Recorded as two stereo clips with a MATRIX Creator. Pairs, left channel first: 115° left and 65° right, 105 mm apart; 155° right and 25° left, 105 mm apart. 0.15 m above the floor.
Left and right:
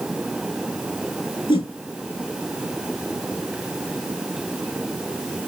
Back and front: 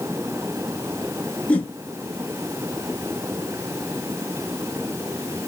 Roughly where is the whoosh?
Behind left.